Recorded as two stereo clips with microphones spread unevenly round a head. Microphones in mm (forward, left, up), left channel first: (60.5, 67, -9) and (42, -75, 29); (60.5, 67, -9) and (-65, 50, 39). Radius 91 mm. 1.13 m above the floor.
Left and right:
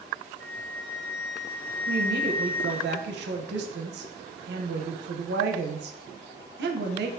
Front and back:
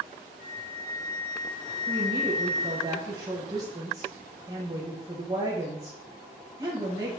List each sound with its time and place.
0.4 s a flute: straight ahead, 0.9 m
1.9 s a woman speaking: 100° right, 0.5 m